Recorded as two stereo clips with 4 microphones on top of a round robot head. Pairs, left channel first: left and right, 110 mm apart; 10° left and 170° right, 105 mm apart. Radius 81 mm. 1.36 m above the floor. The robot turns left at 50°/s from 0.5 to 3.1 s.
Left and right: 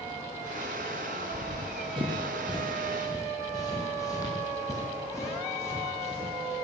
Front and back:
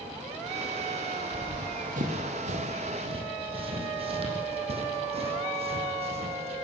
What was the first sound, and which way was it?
Running footsteps, 120° right.